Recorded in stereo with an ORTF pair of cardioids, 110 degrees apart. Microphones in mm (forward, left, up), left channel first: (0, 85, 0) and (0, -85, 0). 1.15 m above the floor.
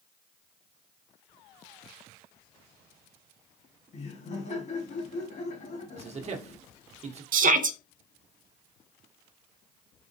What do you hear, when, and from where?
3.9 s laughter: 45° left, 1.6 m
6.0 s a man speaking: 40° right, 1.2 m
7.3 s a shout: 55° right, 0.7 m